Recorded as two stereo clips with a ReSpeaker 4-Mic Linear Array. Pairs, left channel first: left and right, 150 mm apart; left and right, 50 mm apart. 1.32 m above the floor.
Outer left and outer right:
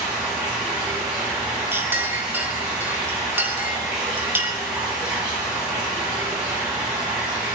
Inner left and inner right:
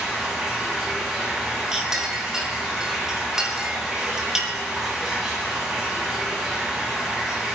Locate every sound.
0.0 s running water: 5° right (ahead or behind), 9 m
1.7 s a clink: 15° right (ahead or behind), 2.5 m